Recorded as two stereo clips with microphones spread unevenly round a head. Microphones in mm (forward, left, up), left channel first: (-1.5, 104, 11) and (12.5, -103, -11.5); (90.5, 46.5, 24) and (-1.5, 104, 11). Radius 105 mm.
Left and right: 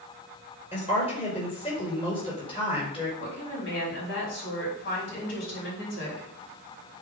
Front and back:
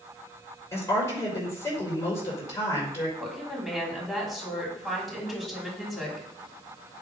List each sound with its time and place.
0.7 s a woman speaking: 30° left, 5.5 m
3.2 s a woman speaking: 55° left, 5 m